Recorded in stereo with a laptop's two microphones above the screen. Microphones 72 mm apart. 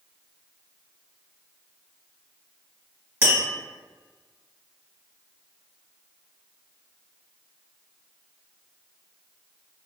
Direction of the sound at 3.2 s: 30° right (ahead or behind).